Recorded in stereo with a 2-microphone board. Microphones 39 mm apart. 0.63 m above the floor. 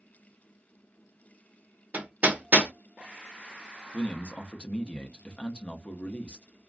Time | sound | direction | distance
1.9 | hammering | 40° right (ahead or behind) | 1.0 m
3.9 | a man speaking | 30° left (ahead or behind) | 0.6 m